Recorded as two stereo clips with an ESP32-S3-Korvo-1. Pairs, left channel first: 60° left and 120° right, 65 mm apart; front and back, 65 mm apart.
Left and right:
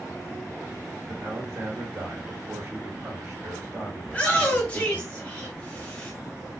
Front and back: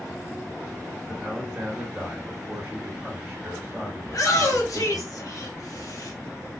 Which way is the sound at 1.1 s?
145° right.